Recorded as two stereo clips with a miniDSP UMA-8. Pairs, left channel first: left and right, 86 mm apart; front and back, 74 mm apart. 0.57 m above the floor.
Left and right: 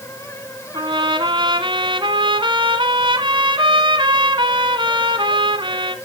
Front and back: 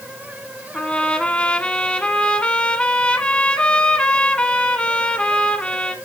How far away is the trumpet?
About 1.4 m.